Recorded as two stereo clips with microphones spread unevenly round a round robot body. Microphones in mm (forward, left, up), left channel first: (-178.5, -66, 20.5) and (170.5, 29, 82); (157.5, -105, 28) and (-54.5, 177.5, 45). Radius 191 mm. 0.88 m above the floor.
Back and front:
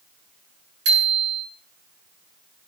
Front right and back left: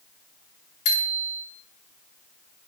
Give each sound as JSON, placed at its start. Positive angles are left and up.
{"t": 0.8, "sound": "a bicycle bell", "azimuth_deg": -40, "distance_m": 9.0}